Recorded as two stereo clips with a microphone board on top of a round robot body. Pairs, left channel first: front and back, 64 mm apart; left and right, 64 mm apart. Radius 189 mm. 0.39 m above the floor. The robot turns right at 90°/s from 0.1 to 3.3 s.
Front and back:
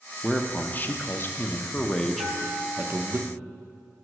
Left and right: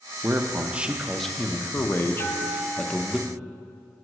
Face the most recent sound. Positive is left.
turn(degrees=-150)